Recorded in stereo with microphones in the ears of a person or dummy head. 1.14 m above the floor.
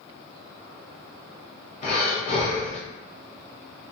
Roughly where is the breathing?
Left.